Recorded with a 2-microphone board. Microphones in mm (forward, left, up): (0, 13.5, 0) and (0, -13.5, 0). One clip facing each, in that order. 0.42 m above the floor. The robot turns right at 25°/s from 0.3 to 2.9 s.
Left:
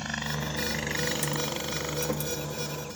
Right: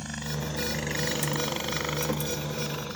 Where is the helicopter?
25° left (ahead or behind); by 3.0 s 50° right (ahead or behind).